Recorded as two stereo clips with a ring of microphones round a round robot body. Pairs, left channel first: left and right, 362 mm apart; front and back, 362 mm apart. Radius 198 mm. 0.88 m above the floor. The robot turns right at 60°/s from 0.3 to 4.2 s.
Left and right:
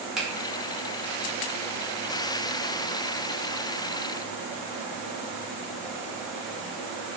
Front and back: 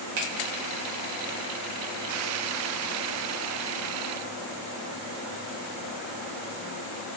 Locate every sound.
0.2 s a finger snap: straight behind, 0.8 m